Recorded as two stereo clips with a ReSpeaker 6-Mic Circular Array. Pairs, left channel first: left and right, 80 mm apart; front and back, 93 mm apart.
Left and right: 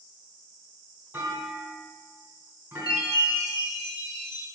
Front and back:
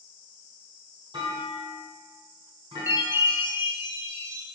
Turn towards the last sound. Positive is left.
turn(degrees=115)